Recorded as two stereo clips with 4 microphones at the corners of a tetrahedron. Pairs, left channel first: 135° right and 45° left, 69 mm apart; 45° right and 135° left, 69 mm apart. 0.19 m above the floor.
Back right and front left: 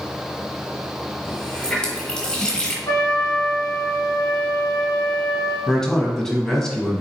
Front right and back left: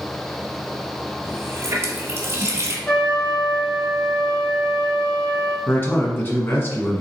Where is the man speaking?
60° right, 1.1 m.